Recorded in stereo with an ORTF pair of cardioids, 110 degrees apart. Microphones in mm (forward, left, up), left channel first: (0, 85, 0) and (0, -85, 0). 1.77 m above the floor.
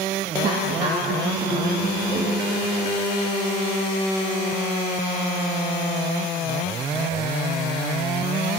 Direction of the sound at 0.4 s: 60° right.